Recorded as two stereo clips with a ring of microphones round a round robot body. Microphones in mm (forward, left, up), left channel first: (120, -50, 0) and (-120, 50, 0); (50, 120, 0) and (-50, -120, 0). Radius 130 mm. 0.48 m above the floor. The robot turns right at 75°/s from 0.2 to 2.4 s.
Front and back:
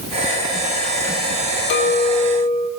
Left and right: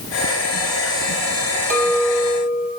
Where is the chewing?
I don't hear chewing.